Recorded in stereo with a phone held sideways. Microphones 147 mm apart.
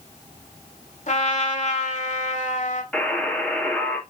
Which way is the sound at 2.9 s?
10° left (ahead or behind).